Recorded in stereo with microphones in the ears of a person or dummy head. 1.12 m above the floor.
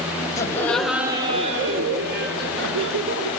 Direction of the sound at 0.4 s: 20° left (ahead or behind).